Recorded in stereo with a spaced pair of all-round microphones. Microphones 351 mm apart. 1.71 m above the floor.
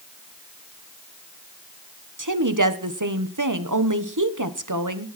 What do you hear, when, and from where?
2.2 s a woman speaking: 60° right (ahead or behind), 1.4 m